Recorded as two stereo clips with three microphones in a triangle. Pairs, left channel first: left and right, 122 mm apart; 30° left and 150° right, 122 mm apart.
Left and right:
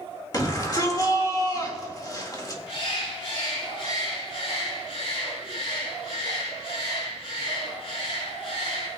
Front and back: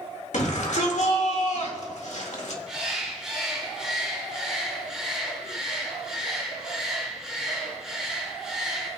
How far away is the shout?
About 2.0 m.